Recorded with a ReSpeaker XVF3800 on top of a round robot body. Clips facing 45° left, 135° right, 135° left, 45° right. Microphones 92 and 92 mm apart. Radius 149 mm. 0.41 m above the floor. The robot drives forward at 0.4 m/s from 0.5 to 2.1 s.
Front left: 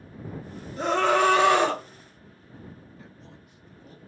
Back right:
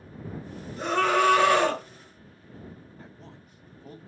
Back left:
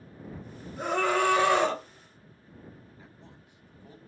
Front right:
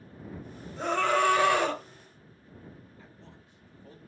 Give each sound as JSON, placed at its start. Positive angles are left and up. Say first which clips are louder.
{"t": 0.8, "sound": "a scream", "louder": "front left 2 dB, even", "azimuth_deg": 65, "distance_m": 1.4}
{"t": 3.0, "sound": "a man speaking", "louder": "back right 1 dB, even", "azimuth_deg": -155, "distance_m": 1.0}